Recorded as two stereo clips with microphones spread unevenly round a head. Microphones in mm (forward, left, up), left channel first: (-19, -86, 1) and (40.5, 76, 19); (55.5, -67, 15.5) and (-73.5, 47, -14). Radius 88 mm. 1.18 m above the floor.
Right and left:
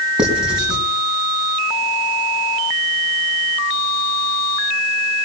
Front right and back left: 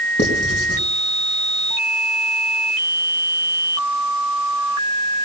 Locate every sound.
0.2 s writing: 15° right, 4.5 m